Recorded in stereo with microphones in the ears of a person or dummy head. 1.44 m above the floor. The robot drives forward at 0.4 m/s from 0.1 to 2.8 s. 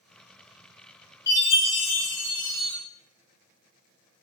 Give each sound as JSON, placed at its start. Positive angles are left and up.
{"t": 1.3, "sound": "a chime", "side_deg": 15, "distance_m": 1.7}